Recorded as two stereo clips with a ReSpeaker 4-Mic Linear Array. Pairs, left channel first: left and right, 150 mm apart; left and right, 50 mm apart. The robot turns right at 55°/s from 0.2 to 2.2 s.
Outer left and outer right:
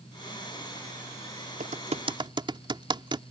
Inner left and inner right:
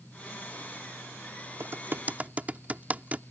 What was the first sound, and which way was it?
Typing on a keyboard, 65° right (ahead or behind).